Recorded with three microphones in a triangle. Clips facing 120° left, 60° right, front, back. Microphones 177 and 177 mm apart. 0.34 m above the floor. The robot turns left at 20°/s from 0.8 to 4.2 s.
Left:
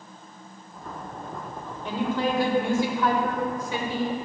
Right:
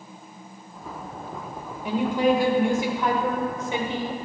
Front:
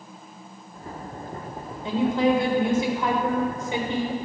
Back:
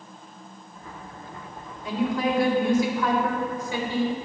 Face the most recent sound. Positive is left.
turn(degrees=-40)